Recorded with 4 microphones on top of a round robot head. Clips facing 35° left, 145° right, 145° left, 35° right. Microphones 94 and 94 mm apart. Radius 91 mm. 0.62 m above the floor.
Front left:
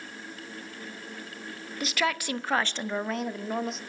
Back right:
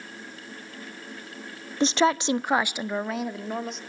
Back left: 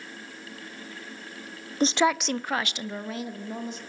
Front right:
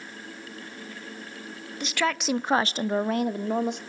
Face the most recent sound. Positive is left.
turn(degrees=-55)